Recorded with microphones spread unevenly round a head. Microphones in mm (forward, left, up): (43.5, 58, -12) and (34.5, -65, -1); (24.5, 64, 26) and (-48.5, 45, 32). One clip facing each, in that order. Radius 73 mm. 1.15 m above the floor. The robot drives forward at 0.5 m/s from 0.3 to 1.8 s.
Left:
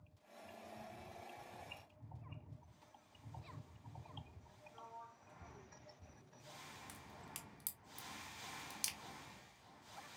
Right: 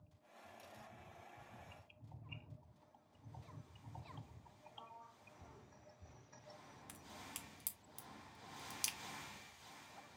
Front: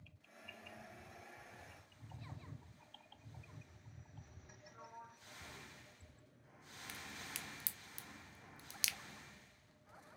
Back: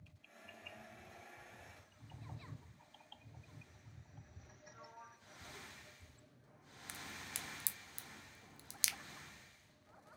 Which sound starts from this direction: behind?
A crack, at 6.9 s.